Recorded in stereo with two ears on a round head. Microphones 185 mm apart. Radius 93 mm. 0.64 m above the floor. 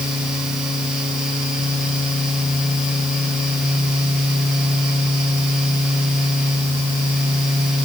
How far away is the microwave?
No microwave in this recording.